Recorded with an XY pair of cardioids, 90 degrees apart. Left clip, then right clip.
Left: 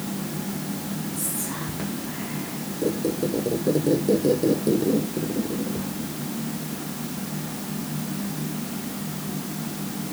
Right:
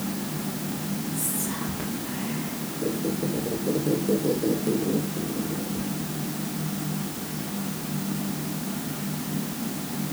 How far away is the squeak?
About 1.7 m.